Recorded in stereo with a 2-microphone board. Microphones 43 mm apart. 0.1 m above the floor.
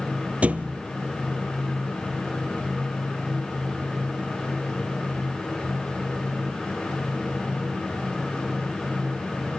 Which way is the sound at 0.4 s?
30° right (ahead or behind).